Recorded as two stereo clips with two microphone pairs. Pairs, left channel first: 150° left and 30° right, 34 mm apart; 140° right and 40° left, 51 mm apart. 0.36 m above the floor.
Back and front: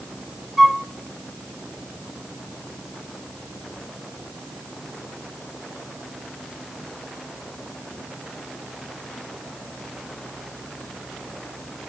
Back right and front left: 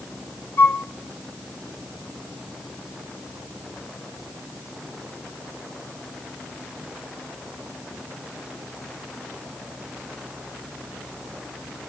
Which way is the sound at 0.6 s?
115° right.